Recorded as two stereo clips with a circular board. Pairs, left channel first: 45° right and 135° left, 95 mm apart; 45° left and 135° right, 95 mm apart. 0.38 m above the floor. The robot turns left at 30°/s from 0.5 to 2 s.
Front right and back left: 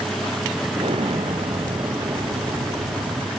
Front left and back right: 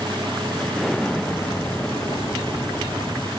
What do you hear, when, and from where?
0.8 s an explosion: 140° left; by 3.3 s 100° left